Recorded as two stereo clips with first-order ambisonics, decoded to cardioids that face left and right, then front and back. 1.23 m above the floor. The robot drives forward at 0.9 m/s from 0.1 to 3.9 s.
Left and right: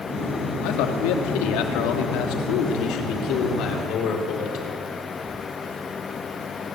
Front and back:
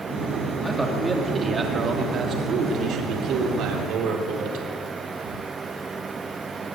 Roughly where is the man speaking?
Left.